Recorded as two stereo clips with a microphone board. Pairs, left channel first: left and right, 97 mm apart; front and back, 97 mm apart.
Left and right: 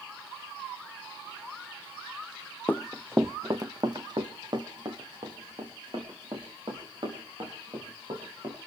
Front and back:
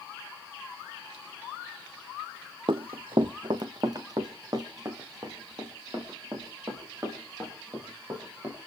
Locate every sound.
2.7 s running footsteps: 155° left, 0.5 m; by 8.6 s 125° right, 8.5 m